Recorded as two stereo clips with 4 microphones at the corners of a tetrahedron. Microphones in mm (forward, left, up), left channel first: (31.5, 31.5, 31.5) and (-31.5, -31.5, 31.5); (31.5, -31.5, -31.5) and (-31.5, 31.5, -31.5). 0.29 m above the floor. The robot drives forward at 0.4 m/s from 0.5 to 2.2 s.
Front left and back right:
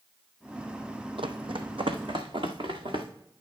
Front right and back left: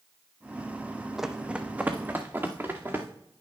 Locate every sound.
1.2 s running footsteps: 140° right, 0.8 m; by 3.1 s 160° right, 2 m